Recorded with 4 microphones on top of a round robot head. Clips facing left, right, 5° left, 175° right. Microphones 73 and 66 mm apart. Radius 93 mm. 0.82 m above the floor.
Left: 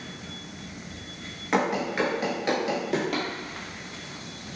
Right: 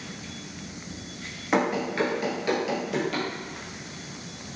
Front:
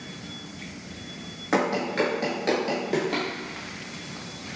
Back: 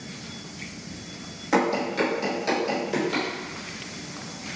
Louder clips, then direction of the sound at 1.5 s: Even, back 1 dB; 15° right.